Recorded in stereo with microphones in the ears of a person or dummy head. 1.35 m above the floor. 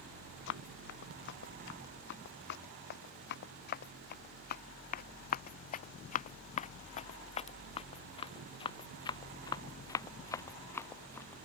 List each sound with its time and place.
0.5 s running footsteps: 65° left (ahead or behind); by 11.4 s 15° left (ahead or behind)